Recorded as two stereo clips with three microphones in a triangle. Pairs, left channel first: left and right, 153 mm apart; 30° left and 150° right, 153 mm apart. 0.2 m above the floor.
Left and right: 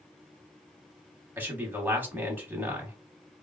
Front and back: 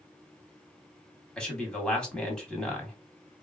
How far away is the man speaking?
About 1.0 m.